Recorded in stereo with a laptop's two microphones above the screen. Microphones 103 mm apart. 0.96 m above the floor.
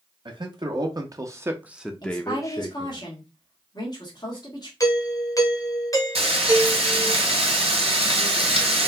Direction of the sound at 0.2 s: 50° right (ahead or behind).